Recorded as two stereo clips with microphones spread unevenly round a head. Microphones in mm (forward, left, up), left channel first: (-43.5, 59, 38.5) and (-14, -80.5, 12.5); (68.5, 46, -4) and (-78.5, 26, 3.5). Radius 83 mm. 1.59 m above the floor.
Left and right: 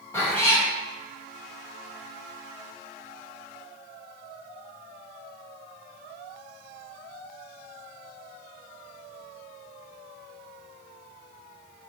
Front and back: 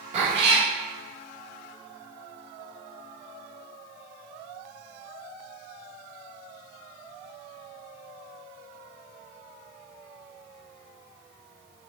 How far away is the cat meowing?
About 1.8 m.